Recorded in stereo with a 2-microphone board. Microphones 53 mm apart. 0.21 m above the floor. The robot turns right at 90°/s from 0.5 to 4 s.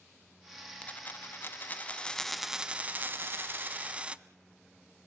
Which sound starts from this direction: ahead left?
A dropped coin, at 0.8 s.